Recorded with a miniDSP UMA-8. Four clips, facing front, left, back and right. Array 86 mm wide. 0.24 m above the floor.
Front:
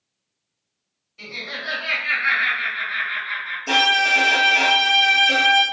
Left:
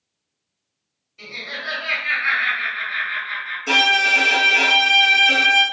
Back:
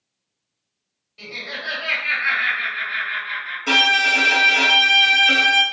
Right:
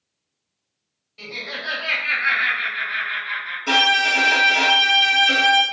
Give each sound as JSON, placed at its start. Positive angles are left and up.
{"t": 1.2, "sound": "laughter", "azimuth_deg": -125, "distance_m": 1.7}
{"t": 3.7, "sound": "a violin", "azimuth_deg": -160, "distance_m": 0.9}